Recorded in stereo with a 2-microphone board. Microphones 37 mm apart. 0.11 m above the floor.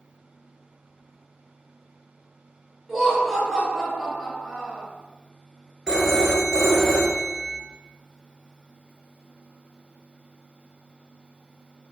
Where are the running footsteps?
I don't hear running footsteps.